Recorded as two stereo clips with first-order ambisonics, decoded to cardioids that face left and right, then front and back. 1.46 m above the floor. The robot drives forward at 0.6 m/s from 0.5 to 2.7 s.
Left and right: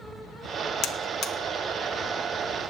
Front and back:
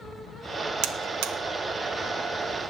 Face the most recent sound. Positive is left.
turn(degrees=165)